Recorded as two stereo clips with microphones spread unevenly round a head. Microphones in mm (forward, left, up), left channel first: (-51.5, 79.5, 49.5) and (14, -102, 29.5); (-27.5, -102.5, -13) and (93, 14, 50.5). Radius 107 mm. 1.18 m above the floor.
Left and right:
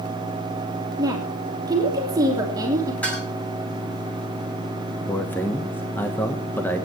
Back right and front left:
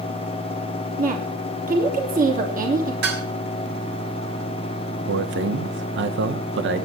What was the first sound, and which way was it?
A woman speaking, 5° left.